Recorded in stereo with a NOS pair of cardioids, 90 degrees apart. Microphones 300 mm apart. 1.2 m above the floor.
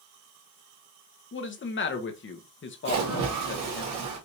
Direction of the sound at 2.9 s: 65° right.